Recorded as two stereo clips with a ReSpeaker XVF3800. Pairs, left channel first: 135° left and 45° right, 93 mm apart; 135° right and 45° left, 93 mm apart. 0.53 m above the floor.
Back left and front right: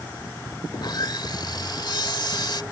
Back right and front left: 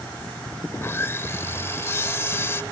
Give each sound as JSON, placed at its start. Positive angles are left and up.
{"t": 0.7, "sound": "sawing", "azimuth_deg": 165}